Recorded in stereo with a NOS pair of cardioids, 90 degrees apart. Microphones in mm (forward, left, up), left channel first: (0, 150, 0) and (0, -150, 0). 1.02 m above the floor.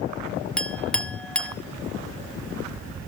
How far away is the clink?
About 0.9 m.